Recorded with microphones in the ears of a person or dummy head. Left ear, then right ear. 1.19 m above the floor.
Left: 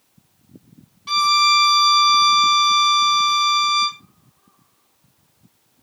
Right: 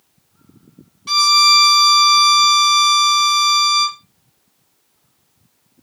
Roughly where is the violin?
Centre.